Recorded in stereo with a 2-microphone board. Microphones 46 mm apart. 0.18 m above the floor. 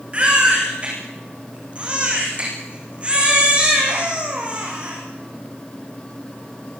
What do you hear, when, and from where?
0.1 s a baby crying: 25° right (ahead or behind), 10 m